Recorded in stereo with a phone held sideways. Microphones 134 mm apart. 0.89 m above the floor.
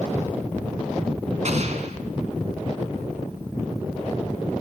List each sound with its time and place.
1.4 s an explosion: 60° right (ahead or behind), 3 m